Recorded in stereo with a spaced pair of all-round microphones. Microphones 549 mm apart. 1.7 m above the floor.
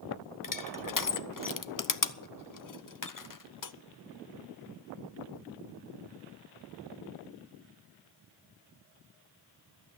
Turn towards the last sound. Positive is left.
turn(degrees=40)  # may be behind; listen again after turning